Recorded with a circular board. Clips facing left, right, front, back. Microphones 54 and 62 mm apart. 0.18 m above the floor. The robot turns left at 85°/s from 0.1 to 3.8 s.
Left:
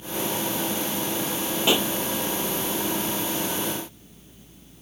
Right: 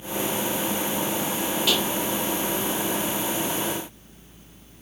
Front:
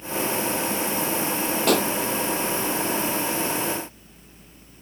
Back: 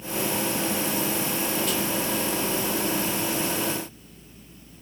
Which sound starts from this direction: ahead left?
A pop, at 1.7 s.